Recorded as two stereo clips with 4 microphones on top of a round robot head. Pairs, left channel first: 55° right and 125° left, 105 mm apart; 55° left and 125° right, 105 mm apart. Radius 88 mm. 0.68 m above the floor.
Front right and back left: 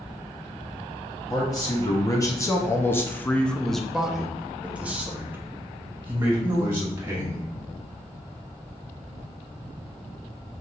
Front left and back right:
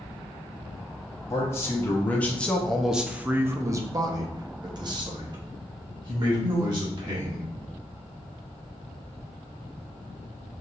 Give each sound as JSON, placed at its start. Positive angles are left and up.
{"t": 1.3, "sound": "a man speaking", "azimuth_deg": -5, "distance_m": 1.2}